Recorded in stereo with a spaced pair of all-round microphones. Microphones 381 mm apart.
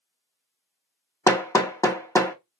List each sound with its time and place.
1.3 s hammering: 10° left (ahead or behind), 0.7 m